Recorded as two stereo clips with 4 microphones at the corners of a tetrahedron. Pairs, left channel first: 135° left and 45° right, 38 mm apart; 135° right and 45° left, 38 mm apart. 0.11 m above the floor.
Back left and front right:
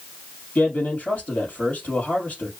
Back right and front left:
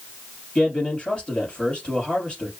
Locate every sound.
0.6 s a man speaking: 175° left, 2.5 m